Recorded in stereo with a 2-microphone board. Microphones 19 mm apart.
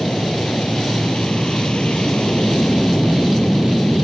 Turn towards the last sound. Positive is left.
turn(degrees=50)  # may be behind; listen again after turning